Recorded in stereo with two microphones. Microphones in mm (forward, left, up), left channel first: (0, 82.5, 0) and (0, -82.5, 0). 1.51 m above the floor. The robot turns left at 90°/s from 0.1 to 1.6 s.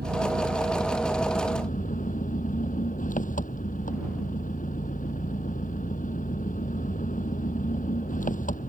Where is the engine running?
95° right; by 8.7 s 130° left.